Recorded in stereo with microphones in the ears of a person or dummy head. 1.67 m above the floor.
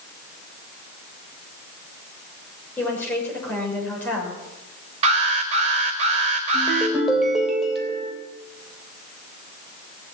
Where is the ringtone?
5° right (ahead or behind), 3 m.